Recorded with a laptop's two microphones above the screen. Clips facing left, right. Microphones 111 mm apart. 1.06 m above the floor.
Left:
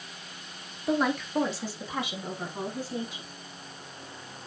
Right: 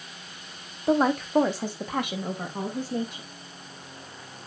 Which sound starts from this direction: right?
A woman speaking, at 0.9 s.